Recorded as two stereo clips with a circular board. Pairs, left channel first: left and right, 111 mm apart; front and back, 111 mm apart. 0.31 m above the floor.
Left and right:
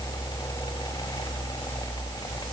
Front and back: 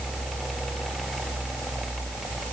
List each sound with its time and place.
Only background noise.